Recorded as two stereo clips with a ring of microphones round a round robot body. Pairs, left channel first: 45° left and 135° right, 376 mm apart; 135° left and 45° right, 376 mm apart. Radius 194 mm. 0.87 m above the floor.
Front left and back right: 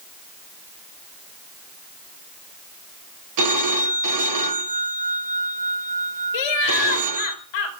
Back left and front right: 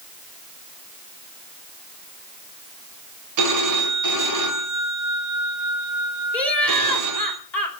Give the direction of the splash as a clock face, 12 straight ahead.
I don't hear a splash.